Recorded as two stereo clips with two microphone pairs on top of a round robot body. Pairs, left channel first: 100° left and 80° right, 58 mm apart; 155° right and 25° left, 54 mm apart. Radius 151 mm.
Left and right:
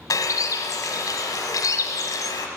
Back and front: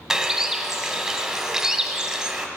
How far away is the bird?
About 1.3 m.